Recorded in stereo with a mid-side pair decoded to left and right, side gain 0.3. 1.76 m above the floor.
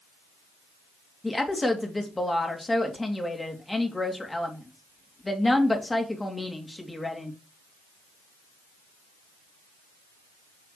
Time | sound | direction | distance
1.2 | a woman speaking | 25° left | 3 m